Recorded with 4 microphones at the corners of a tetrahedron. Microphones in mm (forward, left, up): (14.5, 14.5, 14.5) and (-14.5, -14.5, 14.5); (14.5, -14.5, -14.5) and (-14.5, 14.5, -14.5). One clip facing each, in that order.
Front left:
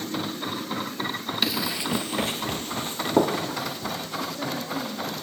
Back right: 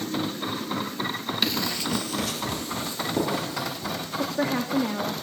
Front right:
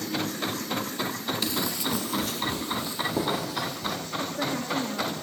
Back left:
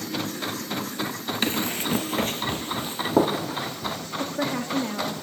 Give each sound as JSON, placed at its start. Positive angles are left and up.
{"t": 1.4, "sound": "running footsteps", "azimuth_deg": 130, "distance_m": 1.4}
{"t": 4.2, "sound": "a woman speaking", "azimuth_deg": -155, "distance_m": 1.9}